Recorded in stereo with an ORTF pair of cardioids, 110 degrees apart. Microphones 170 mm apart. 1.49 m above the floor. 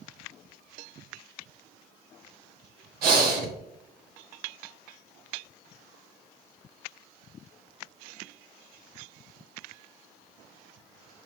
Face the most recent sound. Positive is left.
turn(degrees=-65)